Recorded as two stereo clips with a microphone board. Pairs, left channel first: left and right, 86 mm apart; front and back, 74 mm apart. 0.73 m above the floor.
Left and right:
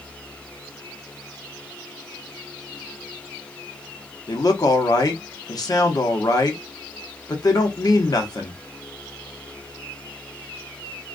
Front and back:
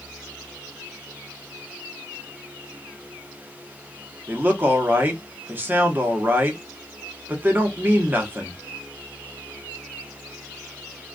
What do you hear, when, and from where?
4.3 s a man speaking: 120° left, 0.8 m